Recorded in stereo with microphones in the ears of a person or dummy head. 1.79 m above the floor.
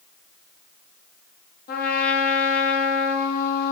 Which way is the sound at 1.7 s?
60° left (ahead or behind).